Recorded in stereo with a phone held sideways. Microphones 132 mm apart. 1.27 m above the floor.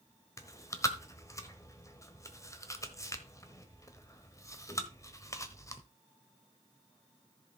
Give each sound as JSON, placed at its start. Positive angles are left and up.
{"t": 0.4, "sound": "chewing", "side_deg": 25, "distance_m": 1.1}